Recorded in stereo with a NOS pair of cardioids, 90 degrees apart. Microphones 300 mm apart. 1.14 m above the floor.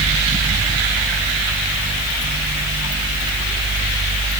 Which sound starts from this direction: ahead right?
A fan, at 0.0 s.